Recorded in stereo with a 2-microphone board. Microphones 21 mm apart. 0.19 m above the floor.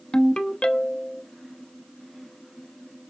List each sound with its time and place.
0.1 s a ringtone: 45° left (ahead or behind), 0.7 m